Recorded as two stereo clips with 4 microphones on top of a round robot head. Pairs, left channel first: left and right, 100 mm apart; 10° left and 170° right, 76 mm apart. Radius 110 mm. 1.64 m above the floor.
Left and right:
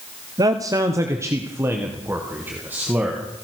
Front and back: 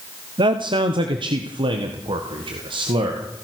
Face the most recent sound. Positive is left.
turn(degrees=-165)